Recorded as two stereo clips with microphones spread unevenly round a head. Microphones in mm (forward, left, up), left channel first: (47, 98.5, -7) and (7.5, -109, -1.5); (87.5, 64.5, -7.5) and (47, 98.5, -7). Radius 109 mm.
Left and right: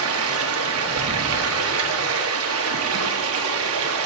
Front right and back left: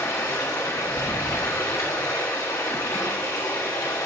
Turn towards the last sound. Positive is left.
turn(degrees=-95)